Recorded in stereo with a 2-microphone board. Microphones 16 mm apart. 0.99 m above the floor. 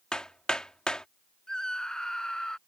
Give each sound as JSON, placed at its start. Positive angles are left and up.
{"t": 0.1, "sound": "hammering", "side_deg": 70}
{"t": 1.5, "sound": "a scream", "side_deg": 50}